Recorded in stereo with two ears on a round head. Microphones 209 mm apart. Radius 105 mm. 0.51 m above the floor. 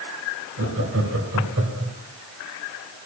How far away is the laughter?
About 4 m.